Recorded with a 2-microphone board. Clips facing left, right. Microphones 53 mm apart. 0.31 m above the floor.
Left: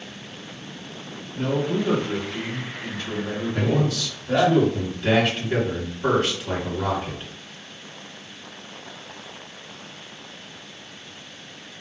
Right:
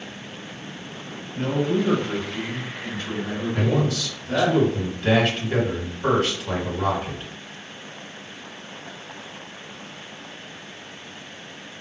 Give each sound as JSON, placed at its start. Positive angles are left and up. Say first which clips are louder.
{"t": 1.4, "sound": "a man speaking", "louder": "right 1 dB", "side_deg": -50, "distance_m": 1.9}
{"t": 3.5, "sound": "a man speaking", "louder": "even", "side_deg": 0, "distance_m": 1.9}